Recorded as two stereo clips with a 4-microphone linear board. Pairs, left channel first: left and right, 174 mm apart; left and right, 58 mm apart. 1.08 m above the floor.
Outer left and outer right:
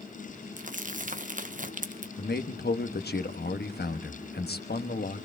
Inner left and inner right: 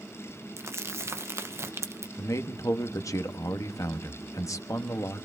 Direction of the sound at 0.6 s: 50° right (ahead or behind).